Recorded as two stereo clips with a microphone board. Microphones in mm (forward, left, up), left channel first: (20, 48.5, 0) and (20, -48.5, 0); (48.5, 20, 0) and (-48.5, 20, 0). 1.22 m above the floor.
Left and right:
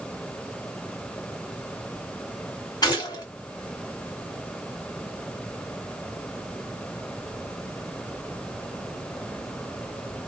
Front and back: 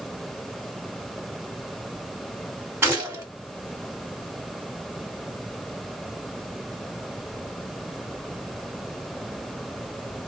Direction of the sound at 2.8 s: 120° left.